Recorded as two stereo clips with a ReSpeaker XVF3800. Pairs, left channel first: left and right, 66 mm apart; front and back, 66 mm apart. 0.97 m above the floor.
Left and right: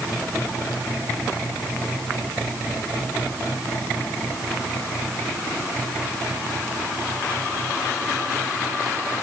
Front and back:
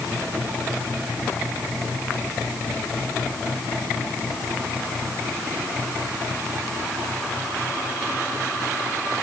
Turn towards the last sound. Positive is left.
No sound to turn to.